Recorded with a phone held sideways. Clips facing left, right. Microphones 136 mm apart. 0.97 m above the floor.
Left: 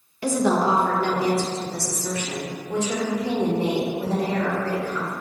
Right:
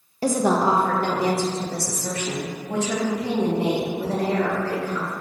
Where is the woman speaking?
35° right (ahead or behind), 0.8 m; by 5.1 s 75° right (ahead or behind), 3 m.